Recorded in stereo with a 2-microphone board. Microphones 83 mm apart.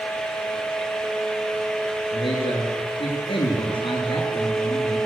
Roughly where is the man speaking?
Left.